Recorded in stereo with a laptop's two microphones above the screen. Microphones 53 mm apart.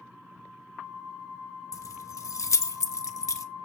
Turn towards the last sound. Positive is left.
turn(degrees=70)  # may be behind; listen again after turning